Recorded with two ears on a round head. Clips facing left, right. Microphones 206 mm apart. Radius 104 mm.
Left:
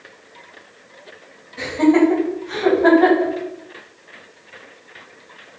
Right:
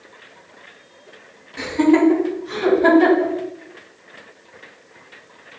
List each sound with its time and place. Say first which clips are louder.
1.6 s laughter: left 1 dB; 75° right (ahead or behind), 1.6 m; by 3.3 s 65° right (ahead or behind), 3.5 m